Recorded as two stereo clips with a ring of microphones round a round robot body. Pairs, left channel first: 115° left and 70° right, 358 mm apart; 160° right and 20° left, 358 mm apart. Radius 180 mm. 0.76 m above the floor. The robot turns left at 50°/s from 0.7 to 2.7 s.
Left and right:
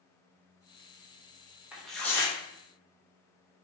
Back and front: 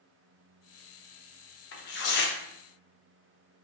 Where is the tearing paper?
150° right, 0.6 m; by 2.4 s straight behind, 0.6 m.